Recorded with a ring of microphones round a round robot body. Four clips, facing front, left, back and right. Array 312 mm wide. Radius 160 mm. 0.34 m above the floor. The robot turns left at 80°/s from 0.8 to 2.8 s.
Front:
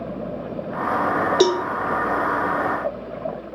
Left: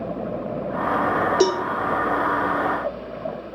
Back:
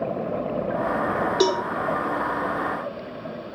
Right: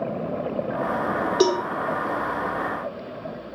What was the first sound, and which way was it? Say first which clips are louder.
A cowbell: right 1 dB, front 3 dB; 5° left.